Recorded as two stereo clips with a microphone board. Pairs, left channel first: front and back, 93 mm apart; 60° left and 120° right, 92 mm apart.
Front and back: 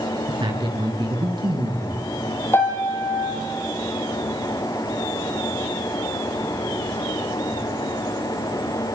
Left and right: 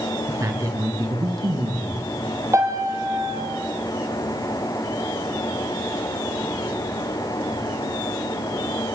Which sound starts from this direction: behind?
A man speaking, at 0.3 s.